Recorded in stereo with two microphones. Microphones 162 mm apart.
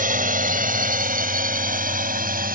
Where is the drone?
60° right (ahead or behind).